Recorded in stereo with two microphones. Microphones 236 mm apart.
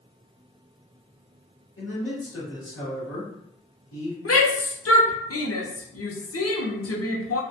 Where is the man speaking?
65° left (ahead or behind), 1.4 m.